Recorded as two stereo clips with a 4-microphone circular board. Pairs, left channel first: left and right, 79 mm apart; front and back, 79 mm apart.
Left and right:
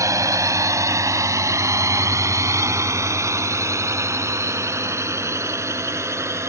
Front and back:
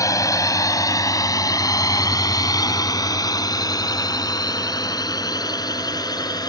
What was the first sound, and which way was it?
A drone, 45° right.